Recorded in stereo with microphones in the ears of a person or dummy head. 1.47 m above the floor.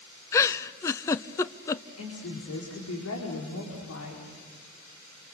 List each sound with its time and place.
0.3 s a giggle: 20° left (ahead or behind), 0.6 m
2.0 s a woman speaking: 80° left, 4.5 m